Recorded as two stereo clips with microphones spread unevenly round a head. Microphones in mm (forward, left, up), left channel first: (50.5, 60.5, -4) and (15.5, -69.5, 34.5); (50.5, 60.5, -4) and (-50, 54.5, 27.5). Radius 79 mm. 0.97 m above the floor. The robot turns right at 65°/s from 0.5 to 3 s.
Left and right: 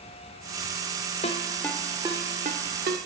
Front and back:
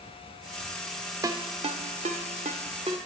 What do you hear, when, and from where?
1.2 s a ringtone: 130° left, 1.4 m; by 3.0 s 115° right, 1.4 m